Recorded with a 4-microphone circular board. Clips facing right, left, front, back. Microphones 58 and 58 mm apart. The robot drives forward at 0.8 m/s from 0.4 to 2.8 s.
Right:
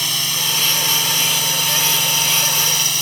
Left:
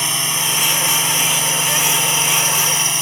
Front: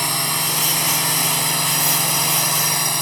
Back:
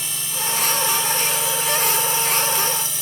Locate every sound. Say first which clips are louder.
0.0 s a drone: left 2 dB, front 6 dB; 25° left